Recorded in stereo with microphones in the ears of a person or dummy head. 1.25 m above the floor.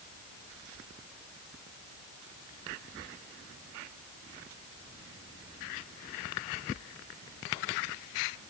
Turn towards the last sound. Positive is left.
No sound to turn to.